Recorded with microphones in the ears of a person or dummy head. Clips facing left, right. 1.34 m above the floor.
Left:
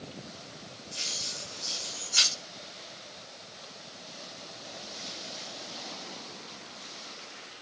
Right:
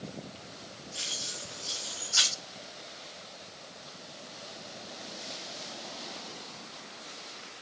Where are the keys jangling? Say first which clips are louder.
Even; 35° left (ahead or behind), 1.9 m.